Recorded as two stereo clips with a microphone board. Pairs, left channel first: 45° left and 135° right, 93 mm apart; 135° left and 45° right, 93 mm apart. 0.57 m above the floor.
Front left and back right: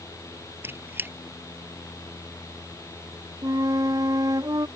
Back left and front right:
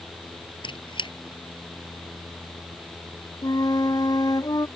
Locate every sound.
0.6 s a squeak: 160° left
3.4 s a flute: straight behind